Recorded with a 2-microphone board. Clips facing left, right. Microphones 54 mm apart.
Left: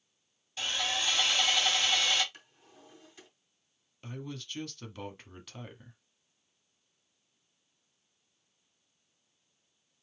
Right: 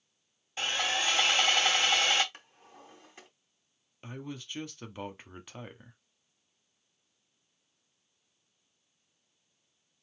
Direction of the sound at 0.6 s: 40° right (ahead or behind).